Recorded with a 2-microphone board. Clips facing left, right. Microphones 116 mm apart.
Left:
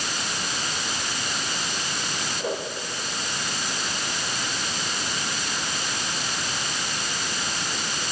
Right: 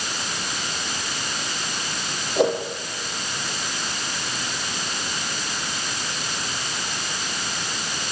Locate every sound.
2.4 s a whoosh: 75° right (ahead or behind), 7 m